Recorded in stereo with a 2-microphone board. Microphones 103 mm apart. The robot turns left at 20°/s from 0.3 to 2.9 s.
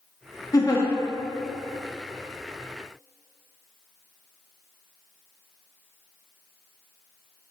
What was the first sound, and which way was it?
A giggle, 40° left (ahead or behind).